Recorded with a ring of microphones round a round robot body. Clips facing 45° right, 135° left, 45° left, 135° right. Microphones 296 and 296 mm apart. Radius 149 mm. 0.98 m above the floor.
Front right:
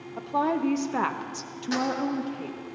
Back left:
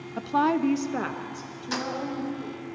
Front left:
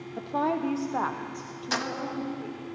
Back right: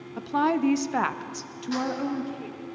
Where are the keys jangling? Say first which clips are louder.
Front right 5 dB, back right 6 dB; 60° left, 1.0 m.